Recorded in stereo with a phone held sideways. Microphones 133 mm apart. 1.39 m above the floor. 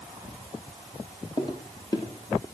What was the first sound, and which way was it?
Footsteps, 30° left (ahead or behind).